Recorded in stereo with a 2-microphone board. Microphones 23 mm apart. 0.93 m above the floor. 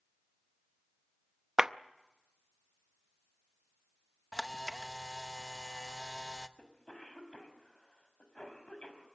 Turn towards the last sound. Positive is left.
turn(degrees=45)  # may be behind; listen again after turning